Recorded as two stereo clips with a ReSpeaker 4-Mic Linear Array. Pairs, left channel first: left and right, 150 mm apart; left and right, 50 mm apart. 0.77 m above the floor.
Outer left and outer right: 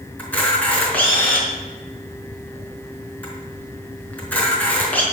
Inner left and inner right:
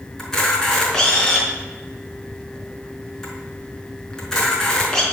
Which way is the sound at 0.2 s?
10° left (ahead or behind).